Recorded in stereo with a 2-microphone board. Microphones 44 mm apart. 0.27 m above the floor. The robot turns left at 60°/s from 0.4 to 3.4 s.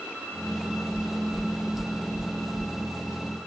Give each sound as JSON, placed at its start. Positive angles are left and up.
{"t": 0.9, "sound": "knocking", "side_deg": -25, "distance_m": 2.0}